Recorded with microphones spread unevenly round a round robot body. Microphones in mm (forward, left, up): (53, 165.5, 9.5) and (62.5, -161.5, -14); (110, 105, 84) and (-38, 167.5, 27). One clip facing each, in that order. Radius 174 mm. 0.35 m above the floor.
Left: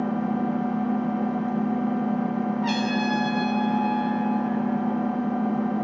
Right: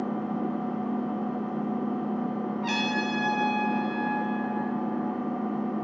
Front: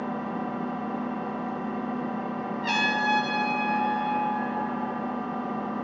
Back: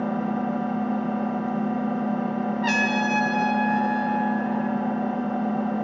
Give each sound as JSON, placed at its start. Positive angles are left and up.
{"t": 0.0, "sound": "an engine running", "azimuth_deg": 145, "distance_m": 0.9}
{"t": 2.6, "sound": "a trumpet", "azimuth_deg": 180, "distance_m": 0.9}